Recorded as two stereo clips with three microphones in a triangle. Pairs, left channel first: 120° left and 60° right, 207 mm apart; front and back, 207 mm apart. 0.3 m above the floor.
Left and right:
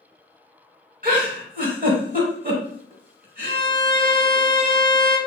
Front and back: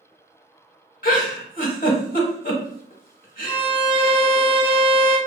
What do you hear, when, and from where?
1.0 s a giggle: 30° right, 0.7 m
3.4 s a violin: 175° right, 0.6 m